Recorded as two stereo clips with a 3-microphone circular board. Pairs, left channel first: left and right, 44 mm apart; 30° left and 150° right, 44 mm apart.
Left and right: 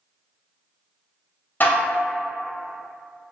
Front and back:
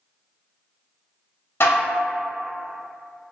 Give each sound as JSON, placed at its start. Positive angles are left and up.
{"t": 1.6, "sound": "dishes clattering", "azimuth_deg": 45, "distance_m": 0.5}